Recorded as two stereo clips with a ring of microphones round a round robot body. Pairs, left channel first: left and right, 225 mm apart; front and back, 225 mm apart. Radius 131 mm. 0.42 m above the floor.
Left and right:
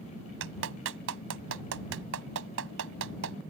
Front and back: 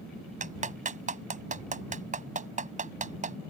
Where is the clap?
125° right.